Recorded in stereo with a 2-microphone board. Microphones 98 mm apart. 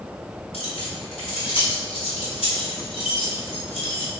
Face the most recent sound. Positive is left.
turn(degrees=85)